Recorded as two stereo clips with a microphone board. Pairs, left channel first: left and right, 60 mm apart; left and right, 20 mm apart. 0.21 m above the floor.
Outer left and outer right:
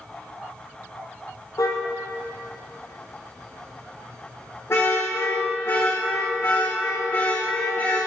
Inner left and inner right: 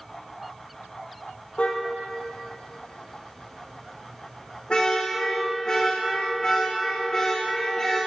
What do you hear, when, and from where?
1.6 s a car horn: 75° left (ahead or behind), 3.5 m; by 8.0 s 35° left (ahead or behind), 10.5 m